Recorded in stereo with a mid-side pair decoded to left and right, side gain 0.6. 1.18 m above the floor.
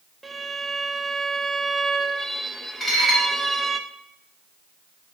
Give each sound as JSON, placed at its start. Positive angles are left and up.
{"t": 0.2, "sound": "a violin", "azimuth_deg": -10, "distance_m": 0.8}
{"t": 2.8, "sound": "dishes clattering", "azimuth_deg": 10, "distance_m": 5.0}